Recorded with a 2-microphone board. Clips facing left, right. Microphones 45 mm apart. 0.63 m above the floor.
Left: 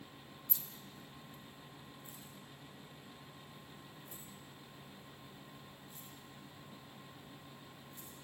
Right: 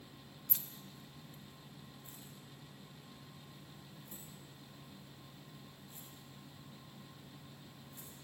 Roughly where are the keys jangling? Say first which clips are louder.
Right 2 dB; right.